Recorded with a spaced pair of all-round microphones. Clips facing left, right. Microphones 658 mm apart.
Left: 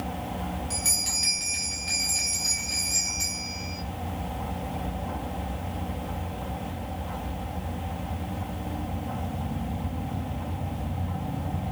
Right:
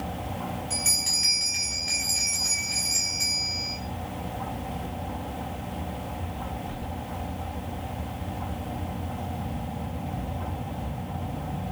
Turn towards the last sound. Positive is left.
turn(degrees=65)  # may be behind; listen again after turning